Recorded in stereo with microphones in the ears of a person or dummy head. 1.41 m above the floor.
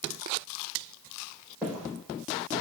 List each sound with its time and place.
1.6 s footsteps: centre (ahead or behind), 9.5 m